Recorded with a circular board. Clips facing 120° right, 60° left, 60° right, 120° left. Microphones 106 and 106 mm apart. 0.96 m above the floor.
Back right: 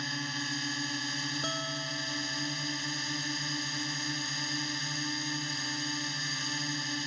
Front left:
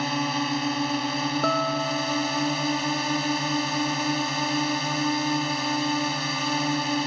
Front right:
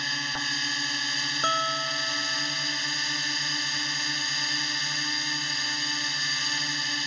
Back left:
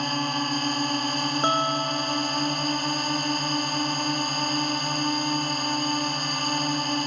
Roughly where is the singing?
I don't hear singing.